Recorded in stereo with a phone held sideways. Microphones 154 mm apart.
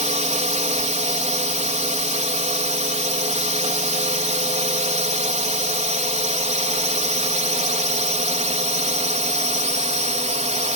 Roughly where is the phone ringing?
No phone ringing in this recording.